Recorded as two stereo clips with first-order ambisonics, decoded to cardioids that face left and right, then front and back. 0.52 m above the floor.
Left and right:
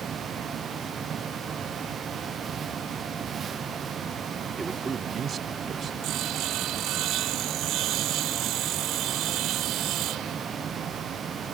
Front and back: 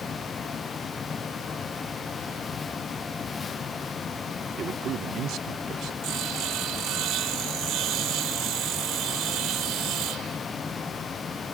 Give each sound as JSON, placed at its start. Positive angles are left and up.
{"t": 4.6, "sound": "a man speaking", "azimuth_deg": -160}
{"t": 6.0, "sound": "sawing", "azimuth_deg": -135}